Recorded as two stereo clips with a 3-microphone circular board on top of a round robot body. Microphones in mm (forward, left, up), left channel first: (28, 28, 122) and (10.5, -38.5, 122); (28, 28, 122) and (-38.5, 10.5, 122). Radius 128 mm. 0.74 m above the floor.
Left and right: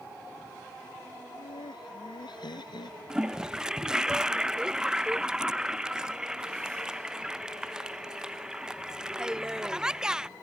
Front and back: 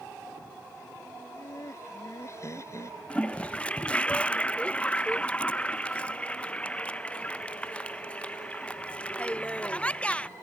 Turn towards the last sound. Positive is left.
turn(degrees=-35)